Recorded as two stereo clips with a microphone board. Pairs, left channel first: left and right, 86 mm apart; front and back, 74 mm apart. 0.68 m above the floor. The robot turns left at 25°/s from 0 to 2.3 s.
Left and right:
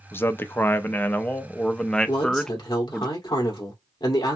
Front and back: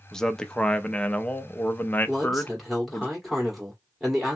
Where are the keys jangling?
No keys jangling in this recording.